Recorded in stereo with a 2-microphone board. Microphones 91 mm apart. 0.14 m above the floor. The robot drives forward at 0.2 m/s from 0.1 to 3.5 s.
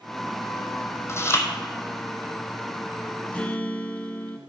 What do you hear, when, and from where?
1.1 s chewing: 30° left (ahead or behind), 1.1 m
3.3 s a guitar: 15° left (ahead or behind), 0.8 m